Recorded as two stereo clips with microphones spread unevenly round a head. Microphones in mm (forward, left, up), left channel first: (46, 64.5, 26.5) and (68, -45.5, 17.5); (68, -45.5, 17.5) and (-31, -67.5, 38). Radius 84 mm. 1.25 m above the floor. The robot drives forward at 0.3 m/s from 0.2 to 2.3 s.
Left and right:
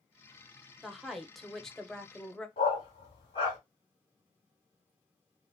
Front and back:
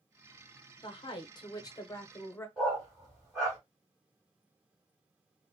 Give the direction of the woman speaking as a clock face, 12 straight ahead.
12 o'clock.